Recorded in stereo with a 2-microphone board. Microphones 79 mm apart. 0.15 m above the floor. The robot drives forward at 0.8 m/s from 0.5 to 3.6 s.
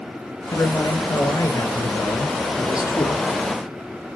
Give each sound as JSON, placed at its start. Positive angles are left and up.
{"t": 0.5, "sound": "a man speaking", "side_deg": 30, "distance_m": 3.0}